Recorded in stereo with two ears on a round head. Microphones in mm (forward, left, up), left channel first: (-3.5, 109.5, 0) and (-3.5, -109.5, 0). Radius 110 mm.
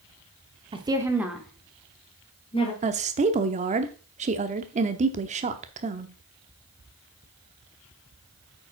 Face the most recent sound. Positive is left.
turn(degrees=-30)  # may be behind; listen again after turning